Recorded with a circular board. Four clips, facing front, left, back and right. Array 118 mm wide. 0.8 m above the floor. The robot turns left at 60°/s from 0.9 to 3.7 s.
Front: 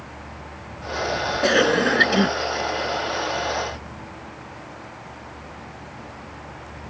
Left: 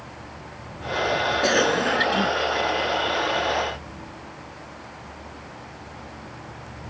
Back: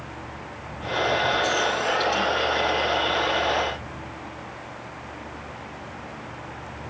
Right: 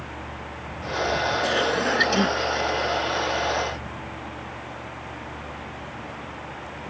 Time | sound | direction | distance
1.4 | a cough | 25° left | ?